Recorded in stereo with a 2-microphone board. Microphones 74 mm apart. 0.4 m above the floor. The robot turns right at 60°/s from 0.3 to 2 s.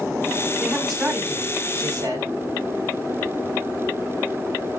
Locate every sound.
0.6 s a man speaking: 170° left, 2.5 m; by 2.3 s 105° right, 2.5 m